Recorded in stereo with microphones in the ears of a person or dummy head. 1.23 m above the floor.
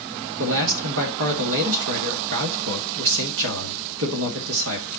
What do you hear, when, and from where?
0.4 s a man speaking: 75° right (ahead or behind), 1.8 m